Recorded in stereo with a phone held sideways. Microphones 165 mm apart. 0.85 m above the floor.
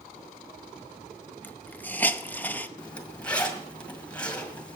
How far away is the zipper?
About 1.8 m.